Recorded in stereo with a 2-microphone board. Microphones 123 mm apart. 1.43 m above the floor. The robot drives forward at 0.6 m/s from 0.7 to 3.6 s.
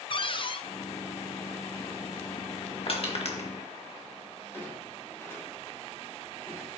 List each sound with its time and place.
0.1 s a cupboard door: 45° left (ahead or behind), 0.6 m
2.9 s crushing: 50° left (ahead or behind), 2 m; by 3.5 s 60° left (ahead or behind), 1.8 m
4.5 s a clunk: 20° left (ahead or behind), 5.5 m